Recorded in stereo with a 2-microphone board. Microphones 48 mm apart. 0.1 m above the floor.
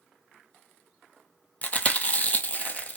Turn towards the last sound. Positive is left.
turn(degrees=30)  # may be behind; listen again after turning